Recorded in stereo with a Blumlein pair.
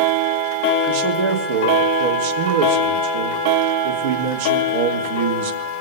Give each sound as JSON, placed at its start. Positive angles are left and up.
{"t": 0.9, "sound": "a man speaking", "azimuth_deg": -55, "distance_m": 3.0}